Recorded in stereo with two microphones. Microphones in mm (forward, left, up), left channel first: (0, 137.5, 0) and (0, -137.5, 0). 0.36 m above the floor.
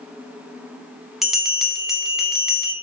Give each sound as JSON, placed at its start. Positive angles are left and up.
{"t": 1.2, "sound": "a bell", "side_deg": 0, "distance_m": 0.7}